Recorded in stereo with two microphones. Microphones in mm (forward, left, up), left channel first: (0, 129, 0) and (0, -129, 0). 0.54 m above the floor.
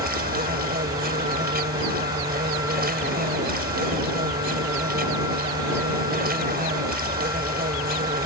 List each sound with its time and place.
0.0 s an insect: 35° right (ahead or behind)